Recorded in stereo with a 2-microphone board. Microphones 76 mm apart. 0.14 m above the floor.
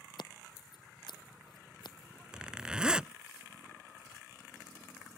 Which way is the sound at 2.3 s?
10° right (ahead or behind).